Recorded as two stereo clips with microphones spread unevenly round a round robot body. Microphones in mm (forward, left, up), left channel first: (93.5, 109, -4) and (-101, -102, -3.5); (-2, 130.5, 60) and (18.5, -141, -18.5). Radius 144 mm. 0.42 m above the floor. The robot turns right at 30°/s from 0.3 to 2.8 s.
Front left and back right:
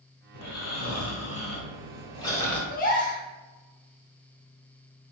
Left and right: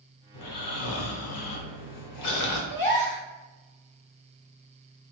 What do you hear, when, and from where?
0.3 s snoring: 65° left, 1.0 m; by 2.6 s 135° left, 1.0 m
2.7 s a gasp: 50° left, 1.0 m